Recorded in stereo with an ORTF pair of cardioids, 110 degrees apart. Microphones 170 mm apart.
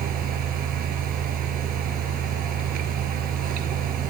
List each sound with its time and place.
0.0 s a fan: 70° right, 1.3 m